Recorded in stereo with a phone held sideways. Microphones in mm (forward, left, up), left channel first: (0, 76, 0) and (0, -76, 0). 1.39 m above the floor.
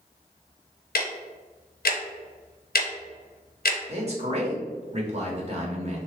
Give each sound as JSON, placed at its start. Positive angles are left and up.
{"t": 0.9, "sound": "ticking", "side_deg": 85, "distance_m": 0.5}
{"t": 3.9, "sound": "a man speaking", "side_deg": -45, "distance_m": 0.9}